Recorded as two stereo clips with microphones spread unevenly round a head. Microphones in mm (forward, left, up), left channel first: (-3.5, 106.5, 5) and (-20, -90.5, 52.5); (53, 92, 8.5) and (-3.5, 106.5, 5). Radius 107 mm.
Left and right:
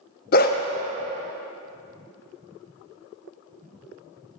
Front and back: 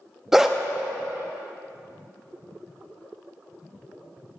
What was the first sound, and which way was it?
A dog barking, 80° left.